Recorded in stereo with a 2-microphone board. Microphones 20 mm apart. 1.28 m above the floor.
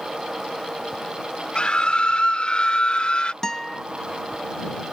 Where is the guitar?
25° left (ahead or behind).